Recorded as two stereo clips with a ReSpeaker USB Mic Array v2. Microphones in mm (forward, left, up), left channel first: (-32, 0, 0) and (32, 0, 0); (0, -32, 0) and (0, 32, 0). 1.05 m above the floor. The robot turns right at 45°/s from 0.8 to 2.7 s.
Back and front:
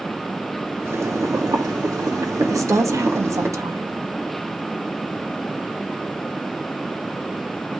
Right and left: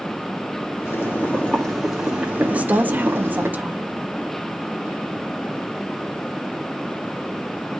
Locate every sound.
0.8 s boiling: 45° right, 2 m; by 3.5 s 40° left, 2 m
2.5 s a woman speaking: 20° left, 1.5 m; by 3.9 s 30° left, 1.5 m